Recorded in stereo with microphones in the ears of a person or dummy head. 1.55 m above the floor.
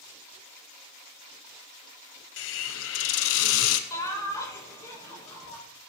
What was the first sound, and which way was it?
A hiss, 70° left (ahead or behind).